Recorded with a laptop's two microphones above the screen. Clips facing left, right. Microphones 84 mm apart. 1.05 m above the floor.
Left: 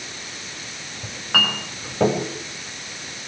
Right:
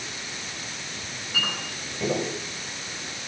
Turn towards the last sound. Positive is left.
turn(degrees=75)  # may be behind; listen again after turning